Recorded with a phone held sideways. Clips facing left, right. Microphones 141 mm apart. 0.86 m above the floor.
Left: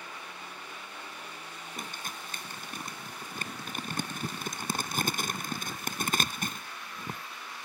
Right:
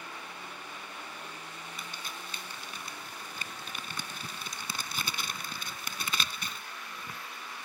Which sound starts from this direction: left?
Crumpling, at 1.8 s.